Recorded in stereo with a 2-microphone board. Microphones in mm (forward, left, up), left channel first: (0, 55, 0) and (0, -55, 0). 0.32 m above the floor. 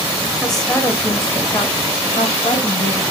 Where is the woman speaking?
Centre (ahead or behind), 1.0 m; by 3.0 s 55° left (ahead or behind), 1.5 m.